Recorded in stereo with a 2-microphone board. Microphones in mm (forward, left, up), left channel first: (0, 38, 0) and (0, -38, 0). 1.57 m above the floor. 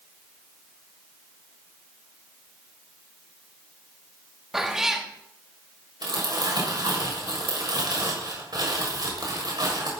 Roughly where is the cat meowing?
Centre.